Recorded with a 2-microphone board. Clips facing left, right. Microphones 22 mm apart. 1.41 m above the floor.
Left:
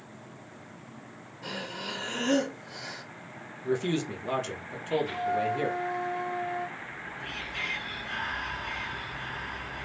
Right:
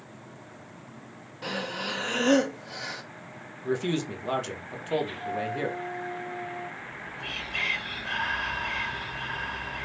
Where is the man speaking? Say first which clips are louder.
Even; 15° right (ahead or behind), 0.9 m.